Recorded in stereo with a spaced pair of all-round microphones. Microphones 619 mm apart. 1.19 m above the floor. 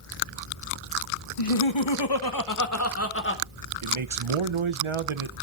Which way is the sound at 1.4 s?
60° left (ahead or behind).